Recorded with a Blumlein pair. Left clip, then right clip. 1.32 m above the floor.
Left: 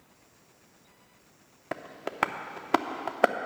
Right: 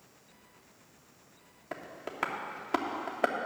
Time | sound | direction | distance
1.7 | tapping | 70° left | 0.5 m